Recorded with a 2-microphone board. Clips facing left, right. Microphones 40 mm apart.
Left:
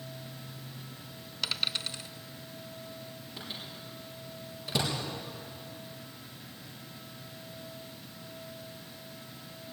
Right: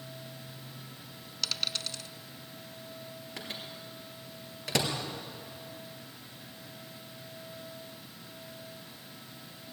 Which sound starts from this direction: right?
A microwave, at 3.4 s.